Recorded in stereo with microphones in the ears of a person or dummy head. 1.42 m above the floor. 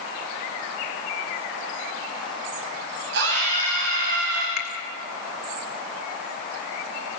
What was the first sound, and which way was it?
A scream, 70° right (ahead or behind).